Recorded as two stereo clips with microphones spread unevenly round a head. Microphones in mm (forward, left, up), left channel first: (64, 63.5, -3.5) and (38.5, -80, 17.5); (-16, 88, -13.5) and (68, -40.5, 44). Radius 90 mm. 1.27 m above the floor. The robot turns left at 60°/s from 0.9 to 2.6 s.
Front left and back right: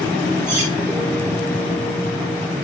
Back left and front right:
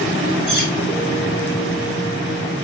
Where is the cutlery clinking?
170° right, 3 m.